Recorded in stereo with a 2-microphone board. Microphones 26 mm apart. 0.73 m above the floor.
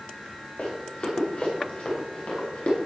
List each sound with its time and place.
0.6 s running footsteps: 40° left (ahead or behind), 7.5 m; by 2.8 s 55° left (ahead or behind), 9.5 m